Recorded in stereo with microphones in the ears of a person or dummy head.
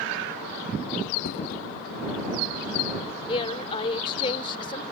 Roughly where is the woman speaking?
Left.